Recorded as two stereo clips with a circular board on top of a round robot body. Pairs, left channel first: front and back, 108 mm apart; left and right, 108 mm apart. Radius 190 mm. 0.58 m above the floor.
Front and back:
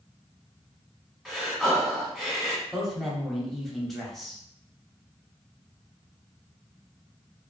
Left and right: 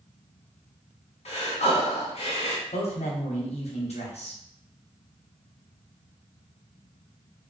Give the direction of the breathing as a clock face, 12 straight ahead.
9 o'clock.